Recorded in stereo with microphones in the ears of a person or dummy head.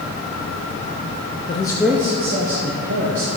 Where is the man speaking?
35° left (ahead or behind), 0.7 m; by 3.3 s 60° right (ahead or behind), 1.7 m.